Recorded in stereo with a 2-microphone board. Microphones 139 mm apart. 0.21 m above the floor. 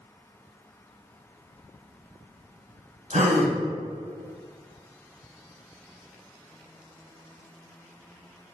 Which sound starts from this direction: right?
A gasp, at 3.1 s.